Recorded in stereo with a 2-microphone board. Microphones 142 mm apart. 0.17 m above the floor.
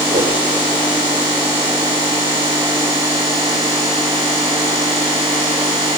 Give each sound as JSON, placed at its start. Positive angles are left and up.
{"t": 0.1, "sound": "a whoosh", "side_deg": -70, "distance_m": 5.0}